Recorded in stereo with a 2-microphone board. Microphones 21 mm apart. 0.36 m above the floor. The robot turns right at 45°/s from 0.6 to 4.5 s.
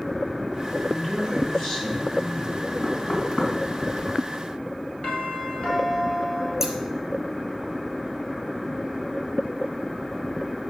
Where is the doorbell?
50° left (ahead or behind), 2 m.